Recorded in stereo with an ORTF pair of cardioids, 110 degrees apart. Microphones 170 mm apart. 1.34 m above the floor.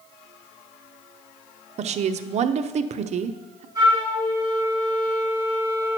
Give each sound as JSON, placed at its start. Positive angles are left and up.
{"t": 1.8, "sound": "a woman speaking", "azimuth_deg": -45, "distance_m": 0.6}
{"t": 3.8, "sound": "a flute", "azimuth_deg": -25, "distance_m": 3.5}